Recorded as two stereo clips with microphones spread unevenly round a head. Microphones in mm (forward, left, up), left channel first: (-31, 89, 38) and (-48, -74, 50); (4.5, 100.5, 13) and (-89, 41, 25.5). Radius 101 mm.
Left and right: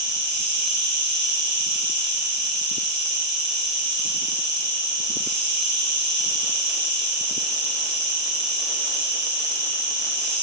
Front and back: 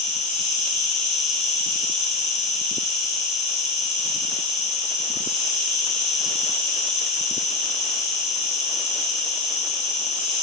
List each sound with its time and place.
0.0 s an insect: 90° right, 4 m